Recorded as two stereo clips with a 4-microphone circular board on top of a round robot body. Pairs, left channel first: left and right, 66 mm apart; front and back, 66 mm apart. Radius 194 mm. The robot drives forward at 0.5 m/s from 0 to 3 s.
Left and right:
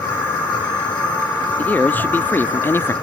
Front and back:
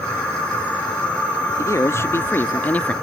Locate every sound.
1.6 s a man speaking: 30° left; by 2.9 s 60° left